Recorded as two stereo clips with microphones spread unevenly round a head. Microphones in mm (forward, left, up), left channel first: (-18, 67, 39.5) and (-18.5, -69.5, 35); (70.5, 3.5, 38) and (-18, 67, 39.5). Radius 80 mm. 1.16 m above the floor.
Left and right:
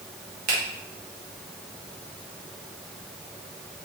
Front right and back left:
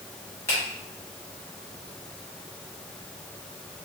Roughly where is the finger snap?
Right.